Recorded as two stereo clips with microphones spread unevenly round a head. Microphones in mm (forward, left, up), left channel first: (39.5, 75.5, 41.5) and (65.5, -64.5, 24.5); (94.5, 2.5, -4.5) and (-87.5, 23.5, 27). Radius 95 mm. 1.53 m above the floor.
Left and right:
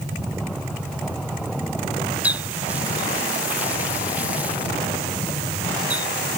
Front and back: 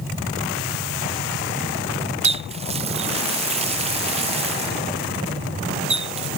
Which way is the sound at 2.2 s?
165° right.